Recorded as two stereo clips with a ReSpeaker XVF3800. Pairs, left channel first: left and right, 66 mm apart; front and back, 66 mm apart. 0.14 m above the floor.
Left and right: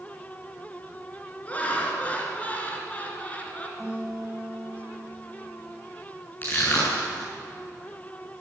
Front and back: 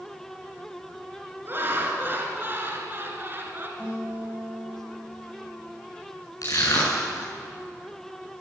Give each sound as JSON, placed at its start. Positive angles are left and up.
{"t": 1.4, "sound": "laughter", "azimuth_deg": 145, "distance_m": 1.9}
{"t": 3.8, "sound": "a guitar", "azimuth_deg": -120, "distance_m": 7.0}
{"t": 6.4, "sound": "crushing", "azimuth_deg": 30, "distance_m": 6.0}